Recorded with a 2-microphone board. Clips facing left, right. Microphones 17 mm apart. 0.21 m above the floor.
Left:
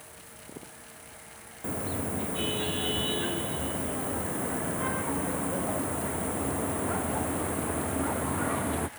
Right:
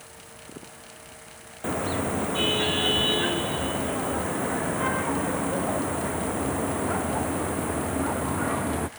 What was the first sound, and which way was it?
A car horn, 35° right (ahead or behind).